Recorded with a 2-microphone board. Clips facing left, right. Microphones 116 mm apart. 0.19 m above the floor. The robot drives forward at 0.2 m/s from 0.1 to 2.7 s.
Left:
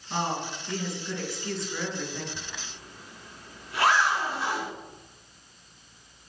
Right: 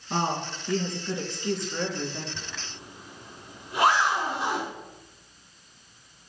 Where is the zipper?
20° right (ahead or behind), 2 m.